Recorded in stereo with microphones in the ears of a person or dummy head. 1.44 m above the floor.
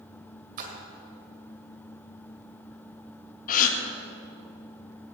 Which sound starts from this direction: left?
A gasp, at 3.5 s.